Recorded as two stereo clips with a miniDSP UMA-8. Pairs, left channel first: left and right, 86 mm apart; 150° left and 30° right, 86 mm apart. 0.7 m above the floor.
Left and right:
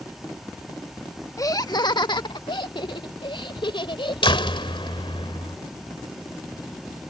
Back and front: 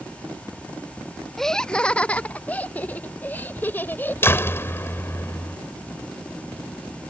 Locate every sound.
1.4 s laughter: 65° left; by 4.6 s 85° left
4.2 s a door slam: 90° left